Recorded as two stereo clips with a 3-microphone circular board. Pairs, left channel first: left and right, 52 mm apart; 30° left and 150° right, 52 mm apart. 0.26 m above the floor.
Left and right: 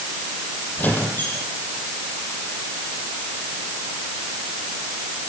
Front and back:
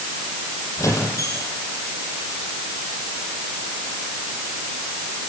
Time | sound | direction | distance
0.8 | a squeak | 40° left | 6.5 m